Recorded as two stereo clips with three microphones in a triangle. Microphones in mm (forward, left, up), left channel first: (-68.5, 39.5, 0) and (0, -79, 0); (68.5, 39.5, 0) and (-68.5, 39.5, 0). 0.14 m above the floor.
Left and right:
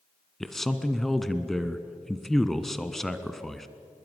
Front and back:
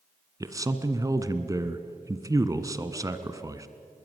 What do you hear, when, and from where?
0.4 s a man speaking: 155° right, 1.4 m